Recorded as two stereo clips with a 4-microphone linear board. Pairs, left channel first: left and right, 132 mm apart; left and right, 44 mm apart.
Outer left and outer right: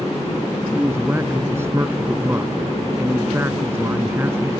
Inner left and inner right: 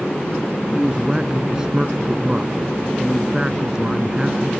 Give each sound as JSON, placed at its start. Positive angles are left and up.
{"t": 0.7, "sound": "a man speaking", "side_deg": -20}